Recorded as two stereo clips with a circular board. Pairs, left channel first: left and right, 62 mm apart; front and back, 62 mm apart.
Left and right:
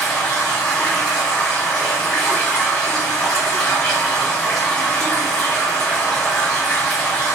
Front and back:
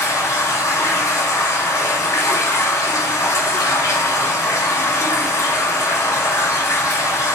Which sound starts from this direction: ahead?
Running water, at 0.0 s.